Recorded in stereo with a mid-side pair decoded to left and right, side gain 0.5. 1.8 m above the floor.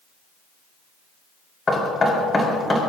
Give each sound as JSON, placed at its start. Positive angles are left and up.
{"t": 1.7, "sound": "knocking", "azimuth_deg": 30, "distance_m": 6.0}